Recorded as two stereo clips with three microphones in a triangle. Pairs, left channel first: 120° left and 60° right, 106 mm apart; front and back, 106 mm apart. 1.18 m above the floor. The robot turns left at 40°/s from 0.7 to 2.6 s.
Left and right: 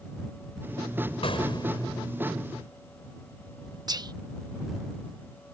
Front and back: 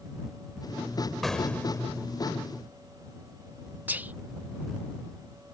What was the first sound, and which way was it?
An explosion, 90° left.